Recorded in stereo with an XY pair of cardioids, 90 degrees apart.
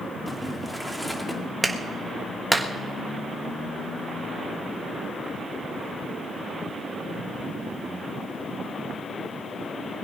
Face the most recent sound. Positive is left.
turn(degrees=-15)